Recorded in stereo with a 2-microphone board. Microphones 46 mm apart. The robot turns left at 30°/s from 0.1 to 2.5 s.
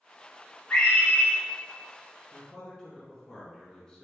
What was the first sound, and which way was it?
A scream, 20° left (ahead or behind).